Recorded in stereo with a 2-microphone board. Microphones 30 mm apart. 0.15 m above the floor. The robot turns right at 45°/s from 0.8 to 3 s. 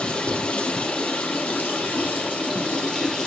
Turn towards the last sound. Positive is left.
turn(degrees=155)